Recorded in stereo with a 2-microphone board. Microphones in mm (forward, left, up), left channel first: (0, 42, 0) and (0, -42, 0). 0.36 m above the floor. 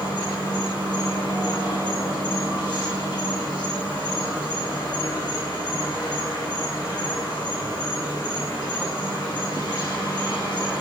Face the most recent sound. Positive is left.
turn(degrees=55)  # may be behind; listen again after turning